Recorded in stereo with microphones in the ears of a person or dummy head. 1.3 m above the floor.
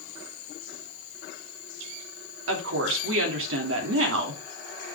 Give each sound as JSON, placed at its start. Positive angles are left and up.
{"t": 2.5, "sound": "a woman speaking", "side_deg": -75, "distance_m": 3.0}